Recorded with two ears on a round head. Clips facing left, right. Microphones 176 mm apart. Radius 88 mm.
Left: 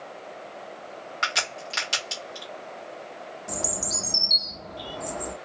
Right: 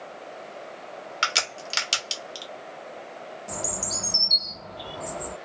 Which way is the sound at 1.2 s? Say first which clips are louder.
Left 1 dB; 35° right (ahead or behind).